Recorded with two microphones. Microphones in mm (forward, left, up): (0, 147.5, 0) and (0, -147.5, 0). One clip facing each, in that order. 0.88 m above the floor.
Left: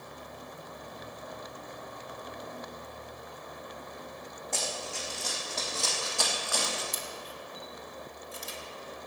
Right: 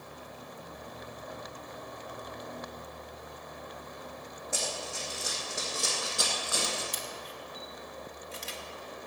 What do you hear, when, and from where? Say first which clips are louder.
4.5 s running footsteps: even; 10° right (ahead or behind), 3.5 m; by 6.8 s 30° right (ahead or behind), 2.0 m
6.9 s a camera shutter: even; 75° right (ahead or behind), 1.1 m